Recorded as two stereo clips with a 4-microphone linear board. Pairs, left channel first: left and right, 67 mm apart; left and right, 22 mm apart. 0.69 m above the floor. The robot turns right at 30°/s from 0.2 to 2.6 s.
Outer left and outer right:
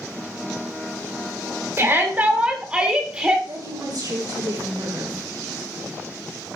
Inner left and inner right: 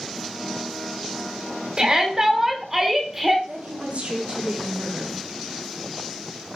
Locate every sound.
1.8 s a shout: 35° right (ahead or behind), 2.5 m; by 3.4 s 15° right (ahead or behind), 2.5 m
3.5 s a woman speaking: 70° right (ahead or behind), 6 m